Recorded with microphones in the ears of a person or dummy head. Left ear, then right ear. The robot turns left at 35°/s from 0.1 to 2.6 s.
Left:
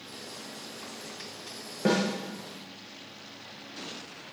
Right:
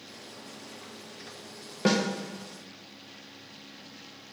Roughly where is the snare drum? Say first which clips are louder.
Even; right.